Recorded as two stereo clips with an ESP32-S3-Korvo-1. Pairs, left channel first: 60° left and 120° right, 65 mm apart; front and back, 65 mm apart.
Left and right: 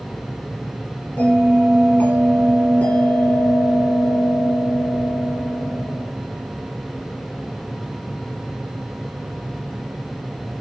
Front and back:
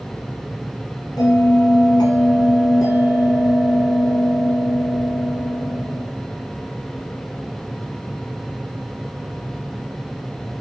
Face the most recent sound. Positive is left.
turn(degrees=-5)